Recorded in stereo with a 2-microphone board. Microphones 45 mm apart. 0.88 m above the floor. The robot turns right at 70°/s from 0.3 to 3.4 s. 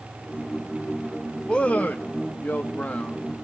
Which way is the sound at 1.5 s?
30° left.